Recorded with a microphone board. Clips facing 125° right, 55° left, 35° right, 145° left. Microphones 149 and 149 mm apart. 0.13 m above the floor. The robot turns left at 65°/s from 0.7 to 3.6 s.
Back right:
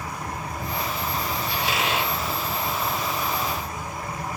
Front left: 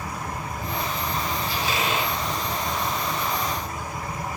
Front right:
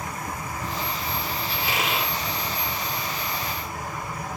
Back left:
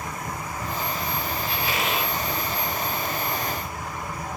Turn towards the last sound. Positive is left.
turn(degrees=135)